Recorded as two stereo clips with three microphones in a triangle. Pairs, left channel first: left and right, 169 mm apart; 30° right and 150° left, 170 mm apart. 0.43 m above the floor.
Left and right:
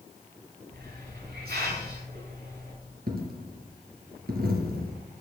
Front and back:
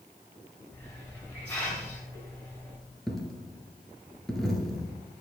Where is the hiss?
110° right, 4.5 m.